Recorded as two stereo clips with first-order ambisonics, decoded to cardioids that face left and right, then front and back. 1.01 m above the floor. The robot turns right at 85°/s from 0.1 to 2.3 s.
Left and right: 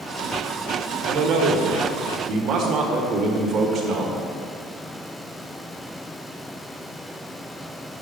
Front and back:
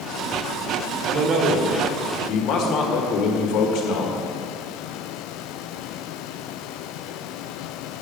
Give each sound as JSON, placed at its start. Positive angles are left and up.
{"t": 1.1, "sound": "a man speaking", "azimuth_deg": -140, "distance_m": 1.5}